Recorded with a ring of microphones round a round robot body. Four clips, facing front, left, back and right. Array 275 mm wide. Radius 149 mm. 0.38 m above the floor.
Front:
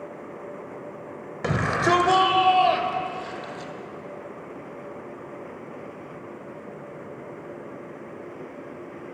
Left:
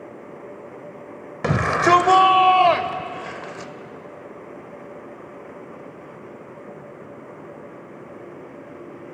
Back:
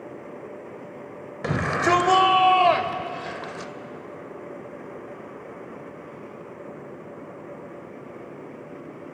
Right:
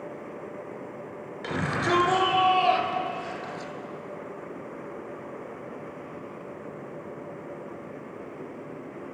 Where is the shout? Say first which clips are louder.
Left 10 dB, even; 85° left, 2 m; by 3.7 s 135° left, 2.0 m.